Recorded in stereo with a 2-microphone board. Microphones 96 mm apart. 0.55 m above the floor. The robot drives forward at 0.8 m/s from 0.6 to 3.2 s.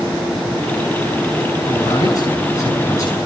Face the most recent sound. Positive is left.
turn(degrees=35)  # may be behind; listen again after turning